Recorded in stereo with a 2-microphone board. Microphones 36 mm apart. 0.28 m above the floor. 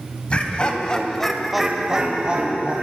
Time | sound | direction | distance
0.3 | laughter | 35° left (ahead or behind) | 1.5 m